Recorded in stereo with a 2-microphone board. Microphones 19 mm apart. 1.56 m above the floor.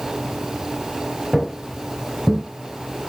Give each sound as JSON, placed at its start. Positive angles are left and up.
{"t": 1.3, "sound": "footsteps", "side_deg": -10, "distance_m": 1.9}